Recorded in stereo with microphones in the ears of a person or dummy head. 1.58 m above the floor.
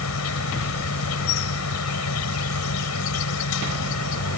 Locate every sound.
0.0 s an insect: 75° left (ahead or behind)